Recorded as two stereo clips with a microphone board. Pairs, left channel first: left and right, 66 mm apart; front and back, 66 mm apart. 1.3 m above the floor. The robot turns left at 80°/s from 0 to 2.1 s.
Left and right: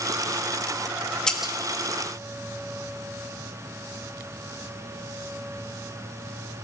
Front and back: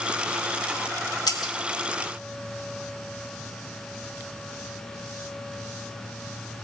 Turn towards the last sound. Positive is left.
turn(degrees=-55)